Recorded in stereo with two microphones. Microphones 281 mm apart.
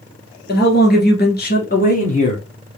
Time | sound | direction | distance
0.5 | a man speaking | 35° left (ahead or behind) | 1.9 m